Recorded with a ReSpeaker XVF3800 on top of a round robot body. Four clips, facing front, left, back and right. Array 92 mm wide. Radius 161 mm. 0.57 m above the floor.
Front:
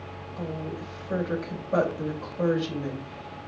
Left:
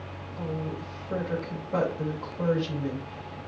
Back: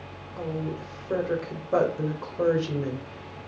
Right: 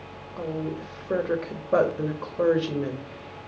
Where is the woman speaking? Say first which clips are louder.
Right 3 dB, back 3 dB; 110° right, 2.5 m.